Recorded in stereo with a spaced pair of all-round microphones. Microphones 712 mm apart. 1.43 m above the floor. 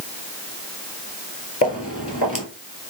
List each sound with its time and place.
1.6 s footsteps: 20° left (ahead or behind), 1.5 m